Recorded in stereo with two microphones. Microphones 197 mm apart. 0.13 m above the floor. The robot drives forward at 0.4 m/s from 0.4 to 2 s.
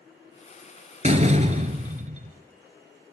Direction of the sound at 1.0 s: 35° right (ahead or behind).